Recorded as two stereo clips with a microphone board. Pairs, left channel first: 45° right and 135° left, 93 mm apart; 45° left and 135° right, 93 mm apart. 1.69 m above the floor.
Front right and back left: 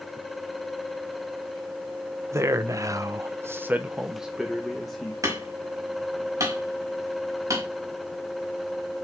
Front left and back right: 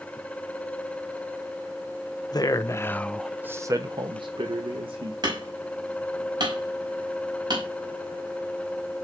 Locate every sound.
2.3 s a man speaking: 80° left, 1.1 m; by 5.1 s 135° right, 1.9 m
5.2 s hammering: 170° right, 5 m